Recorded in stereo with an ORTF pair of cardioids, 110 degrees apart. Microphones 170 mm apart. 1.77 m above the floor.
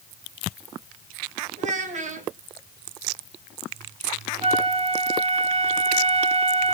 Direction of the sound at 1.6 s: 50° right.